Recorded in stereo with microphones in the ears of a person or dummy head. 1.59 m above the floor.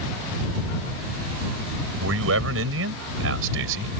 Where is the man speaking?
85° right; by 3.9 s 75° right (ahead or behind).